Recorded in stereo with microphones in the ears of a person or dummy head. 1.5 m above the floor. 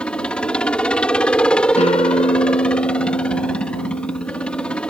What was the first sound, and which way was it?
A helicopter, 5° left (ahead or behind).